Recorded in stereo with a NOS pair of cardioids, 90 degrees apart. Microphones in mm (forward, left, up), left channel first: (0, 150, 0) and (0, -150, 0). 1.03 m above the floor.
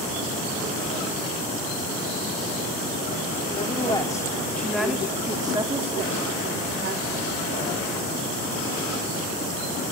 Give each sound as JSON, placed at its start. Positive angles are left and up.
{"t": 3.5, "sound": "a woman speaking", "azimuth_deg": 20, "distance_m": 3.0}